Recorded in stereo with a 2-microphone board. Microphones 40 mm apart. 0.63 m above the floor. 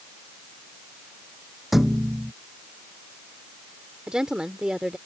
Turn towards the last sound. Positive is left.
turn(degrees=-20)  # may be behind; listen again after turning